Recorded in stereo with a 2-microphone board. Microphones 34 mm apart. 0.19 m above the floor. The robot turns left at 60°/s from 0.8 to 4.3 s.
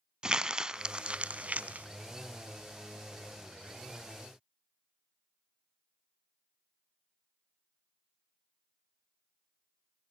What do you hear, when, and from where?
0.2 s crumpling: 20° right (ahead or behind), 0.6 m; by 1.9 s 45° right (ahead or behind), 0.6 m